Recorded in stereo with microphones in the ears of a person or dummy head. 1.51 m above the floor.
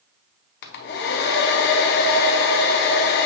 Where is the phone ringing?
No phone ringing in this recording.